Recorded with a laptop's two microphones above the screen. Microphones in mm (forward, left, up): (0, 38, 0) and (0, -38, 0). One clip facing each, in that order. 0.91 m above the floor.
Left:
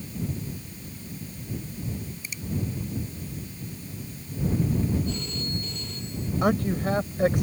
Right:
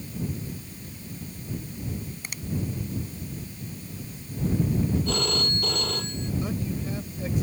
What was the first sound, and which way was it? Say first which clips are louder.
A finger snap: even; 65° right (ahead or behind).